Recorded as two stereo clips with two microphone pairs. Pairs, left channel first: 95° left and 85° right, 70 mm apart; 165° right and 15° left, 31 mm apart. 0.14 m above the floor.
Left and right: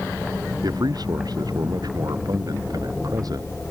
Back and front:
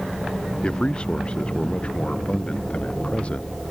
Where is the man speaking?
105° right; by 3.7 s 115° right.